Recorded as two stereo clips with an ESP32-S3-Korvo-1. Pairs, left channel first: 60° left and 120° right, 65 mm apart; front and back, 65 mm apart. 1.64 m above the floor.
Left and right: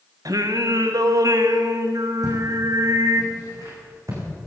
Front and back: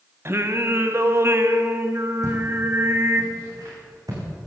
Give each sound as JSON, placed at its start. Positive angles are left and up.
{"t": 0.2, "sound": "singing", "azimuth_deg": -135, "distance_m": 1.2}
{"t": 2.2, "sound": "footsteps", "azimuth_deg": -150, "distance_m": 5.5}